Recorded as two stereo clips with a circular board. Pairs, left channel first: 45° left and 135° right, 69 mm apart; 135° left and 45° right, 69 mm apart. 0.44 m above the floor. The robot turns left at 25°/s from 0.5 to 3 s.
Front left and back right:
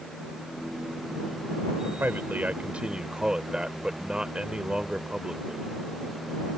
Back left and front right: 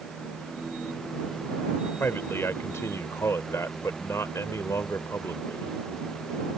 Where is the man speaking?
Straight behind; by 5.7 s 155° left.